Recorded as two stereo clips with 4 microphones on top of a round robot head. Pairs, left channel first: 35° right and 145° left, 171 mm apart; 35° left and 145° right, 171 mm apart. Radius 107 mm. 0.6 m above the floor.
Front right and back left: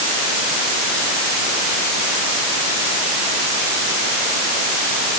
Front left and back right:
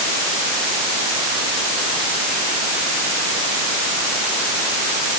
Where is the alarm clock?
No alarm clock in this recording.